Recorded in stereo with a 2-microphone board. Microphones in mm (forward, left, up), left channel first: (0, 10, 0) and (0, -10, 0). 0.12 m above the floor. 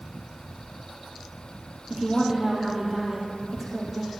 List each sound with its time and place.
1.9 s a woman speaking: 15° right (ahead or behind), 3 m